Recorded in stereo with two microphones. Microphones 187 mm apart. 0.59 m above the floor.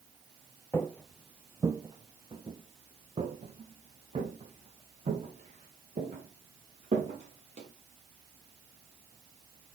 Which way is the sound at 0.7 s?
15° left (ahead or behind).